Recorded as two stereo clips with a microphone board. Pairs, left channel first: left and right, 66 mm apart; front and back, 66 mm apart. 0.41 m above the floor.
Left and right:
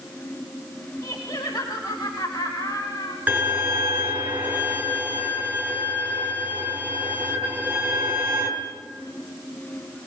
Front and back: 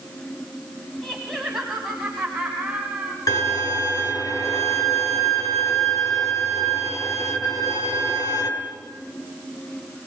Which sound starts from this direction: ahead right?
A violin, at 3.3 s.